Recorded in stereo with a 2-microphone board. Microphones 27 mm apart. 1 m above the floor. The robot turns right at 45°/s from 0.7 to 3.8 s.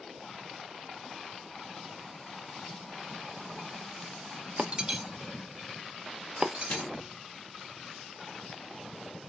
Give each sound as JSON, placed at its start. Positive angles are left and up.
{"t": 4.6, "sound": "breaking glass", "side_deg": -35, "distance_m": 0.8}
{"t": 6.7, "sound": "a microwave", "side_deg": 60, "distance_m": 0.9}